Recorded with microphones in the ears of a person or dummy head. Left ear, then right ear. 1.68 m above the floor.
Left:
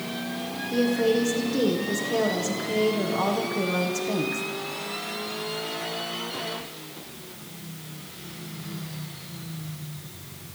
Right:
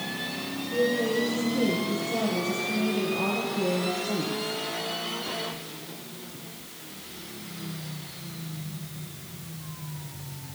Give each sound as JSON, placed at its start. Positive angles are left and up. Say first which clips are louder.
{"t": 0.7, "sound": "a woman speaking", "louder": "left 2 dB", "side_deg": 70, "distance_m": 1.4}